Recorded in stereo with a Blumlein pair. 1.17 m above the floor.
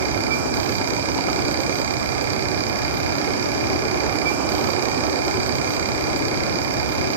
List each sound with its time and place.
0.0 s a fan: 60° right, 1.7 m